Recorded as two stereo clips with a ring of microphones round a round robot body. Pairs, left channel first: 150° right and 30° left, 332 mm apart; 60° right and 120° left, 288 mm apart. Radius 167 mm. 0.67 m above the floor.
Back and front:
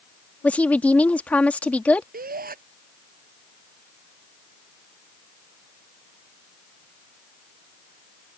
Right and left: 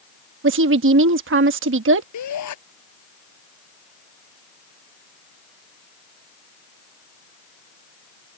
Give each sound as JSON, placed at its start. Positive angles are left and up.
{"t": 0.4, "sound": "a woman speaking", "azimuth_deg": 125}
{"t": 2.1, "sound": "a shout", "azimuth_deg": -35}